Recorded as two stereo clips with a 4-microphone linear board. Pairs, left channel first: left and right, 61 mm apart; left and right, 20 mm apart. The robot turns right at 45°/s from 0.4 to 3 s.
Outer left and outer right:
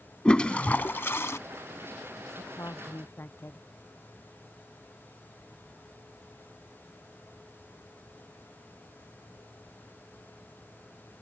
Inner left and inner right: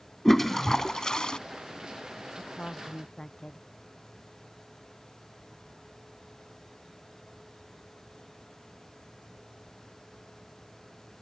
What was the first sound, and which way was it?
A toilet flushing, 20° left.